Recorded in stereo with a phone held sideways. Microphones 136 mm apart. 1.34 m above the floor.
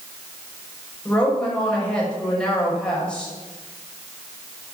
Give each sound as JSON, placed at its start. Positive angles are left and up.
{"t": 1.1, "sound": "a woman speaking", "side_deg": 5, "distance_m": 6.0}